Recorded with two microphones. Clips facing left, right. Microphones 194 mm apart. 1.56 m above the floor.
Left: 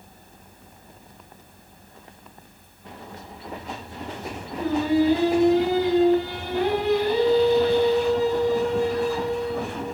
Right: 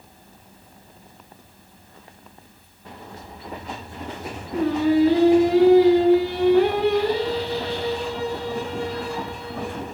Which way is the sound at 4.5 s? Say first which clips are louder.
Right 3 dB; 70° right (ahead or behind).